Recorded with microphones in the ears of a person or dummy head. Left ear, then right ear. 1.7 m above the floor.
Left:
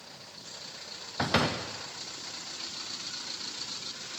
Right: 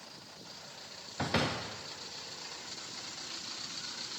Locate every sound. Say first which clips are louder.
1.2 s a door slam: left 5 dB; 10° left (ahead or behind), 0.5 m